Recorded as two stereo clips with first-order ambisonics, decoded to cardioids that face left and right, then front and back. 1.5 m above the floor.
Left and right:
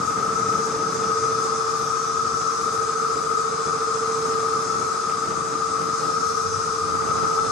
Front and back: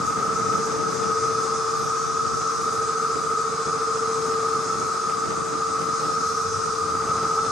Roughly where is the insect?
Ahead left.